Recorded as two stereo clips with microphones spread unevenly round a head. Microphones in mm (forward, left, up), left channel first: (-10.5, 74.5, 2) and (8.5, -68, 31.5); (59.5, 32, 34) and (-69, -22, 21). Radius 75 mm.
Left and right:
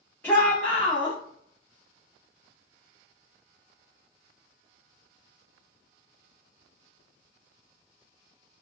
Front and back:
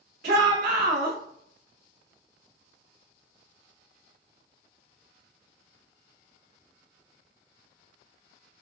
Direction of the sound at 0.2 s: 175° left.